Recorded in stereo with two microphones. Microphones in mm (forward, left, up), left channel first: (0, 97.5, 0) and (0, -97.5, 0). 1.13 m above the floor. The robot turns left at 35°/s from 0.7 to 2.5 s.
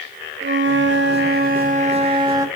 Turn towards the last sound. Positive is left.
turn(degrees=-165)